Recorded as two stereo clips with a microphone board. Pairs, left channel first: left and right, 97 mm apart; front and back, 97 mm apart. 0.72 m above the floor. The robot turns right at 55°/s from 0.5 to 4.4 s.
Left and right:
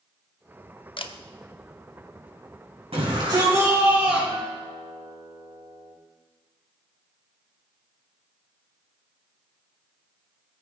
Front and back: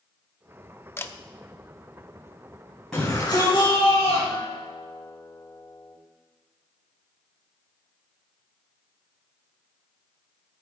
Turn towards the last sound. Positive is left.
turn(degrees=-45)